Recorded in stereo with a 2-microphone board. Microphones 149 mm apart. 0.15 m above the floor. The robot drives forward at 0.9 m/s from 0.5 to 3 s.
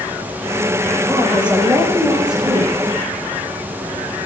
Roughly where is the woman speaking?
Centre.